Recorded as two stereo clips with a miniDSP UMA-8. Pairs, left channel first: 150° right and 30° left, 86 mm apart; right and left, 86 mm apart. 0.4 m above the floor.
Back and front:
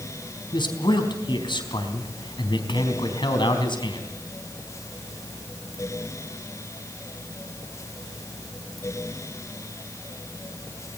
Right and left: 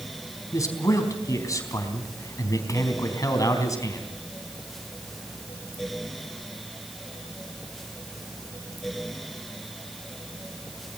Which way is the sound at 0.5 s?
140° right.